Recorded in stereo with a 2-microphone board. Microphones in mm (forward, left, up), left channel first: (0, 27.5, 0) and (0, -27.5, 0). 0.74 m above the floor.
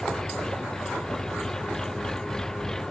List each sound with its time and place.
0.0 s an engine running: 10° left (ahead or behind)